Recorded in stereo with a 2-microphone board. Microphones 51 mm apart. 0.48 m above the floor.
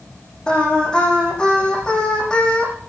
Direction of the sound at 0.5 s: 15° left (ahead or behind).